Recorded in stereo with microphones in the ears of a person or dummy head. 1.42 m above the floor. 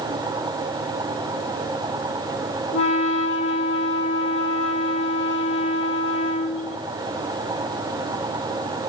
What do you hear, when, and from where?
2.7 s a flute: 35° left (ahead or behind), 2.0 m